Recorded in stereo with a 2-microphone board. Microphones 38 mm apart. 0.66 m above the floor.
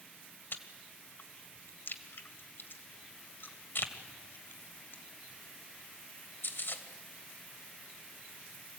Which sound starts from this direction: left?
Chewing, at 0.5 s.